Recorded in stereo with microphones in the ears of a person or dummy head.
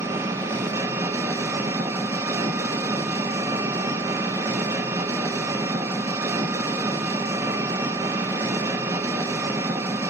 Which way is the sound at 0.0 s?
10° right (ahead or behind).